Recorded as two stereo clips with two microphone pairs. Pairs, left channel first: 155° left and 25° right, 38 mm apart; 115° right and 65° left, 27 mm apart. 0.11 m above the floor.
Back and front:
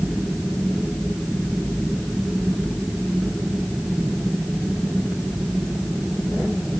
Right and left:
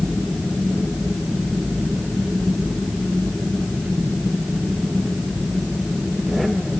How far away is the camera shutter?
I don't hear a camera shutter.